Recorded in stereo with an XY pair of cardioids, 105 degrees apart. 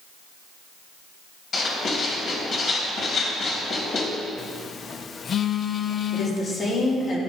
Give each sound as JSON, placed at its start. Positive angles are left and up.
{"t": 1.5, "sound": "writing", "azimuth_deg": 60, "distance_m": 3.0}
{"t": 4.4, "sound": "a phone buzzing", "azimuth_deg": 50, "distance_m": 0.7}
{"t": 6.1, "sound": "a woman speaking", "azimuth_deg": 55, "distance_m": 3.5}